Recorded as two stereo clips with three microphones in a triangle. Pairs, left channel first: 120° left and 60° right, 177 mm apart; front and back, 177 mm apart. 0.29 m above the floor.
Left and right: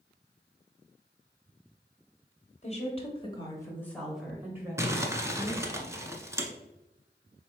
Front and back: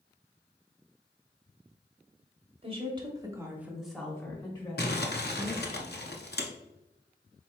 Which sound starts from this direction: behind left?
A woman speaking, at 2.6 s.